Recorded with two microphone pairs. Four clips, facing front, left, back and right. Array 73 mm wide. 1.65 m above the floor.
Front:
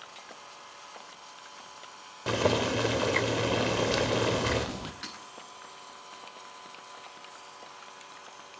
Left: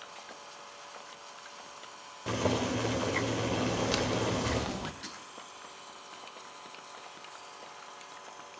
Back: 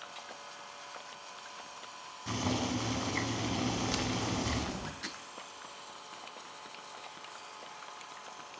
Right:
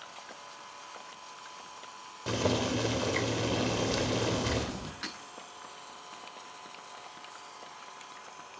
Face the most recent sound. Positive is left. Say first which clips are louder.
# right 4 dB, even
turn(degrees=-75)